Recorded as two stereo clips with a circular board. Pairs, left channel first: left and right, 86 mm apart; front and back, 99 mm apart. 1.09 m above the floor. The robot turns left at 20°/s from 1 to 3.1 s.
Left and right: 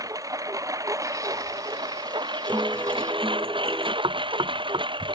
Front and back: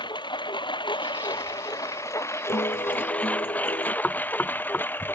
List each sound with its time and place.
0.0 s a lawn mower: 40° right; by 5.2 s 70° right
2.5 s a guitar: 15° right; by 3.9 s 25° right
4.0 s knocking: 70° right